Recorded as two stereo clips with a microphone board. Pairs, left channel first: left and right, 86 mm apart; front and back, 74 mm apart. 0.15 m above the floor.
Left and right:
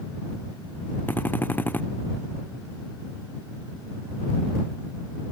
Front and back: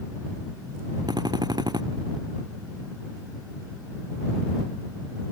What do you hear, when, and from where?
1.1 s a drill: 160° left